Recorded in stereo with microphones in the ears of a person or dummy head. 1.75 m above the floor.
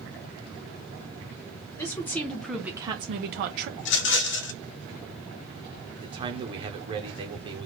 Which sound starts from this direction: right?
A man speaking, at 6.0 s.